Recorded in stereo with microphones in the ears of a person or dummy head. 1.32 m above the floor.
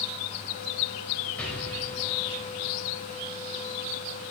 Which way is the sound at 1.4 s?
10° left (ahead or behind).